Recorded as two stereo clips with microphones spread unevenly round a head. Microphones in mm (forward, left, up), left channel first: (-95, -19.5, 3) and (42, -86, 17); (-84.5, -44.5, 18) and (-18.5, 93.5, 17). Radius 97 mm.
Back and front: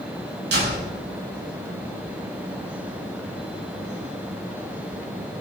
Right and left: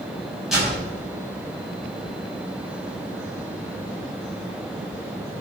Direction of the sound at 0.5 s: 25° right.